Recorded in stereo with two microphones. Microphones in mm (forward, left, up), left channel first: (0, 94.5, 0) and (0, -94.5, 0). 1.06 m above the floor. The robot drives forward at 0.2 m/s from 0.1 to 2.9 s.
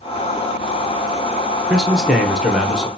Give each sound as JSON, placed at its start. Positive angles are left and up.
{"t": 1.7, "sound": "a man speaking", "side_deg": -5, "distance_m": 0.7}